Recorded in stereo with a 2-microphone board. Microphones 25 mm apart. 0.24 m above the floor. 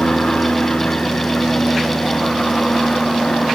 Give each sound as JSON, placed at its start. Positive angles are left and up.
{"t": 0.0, "sound": "an aircraft", "side_deg": 50}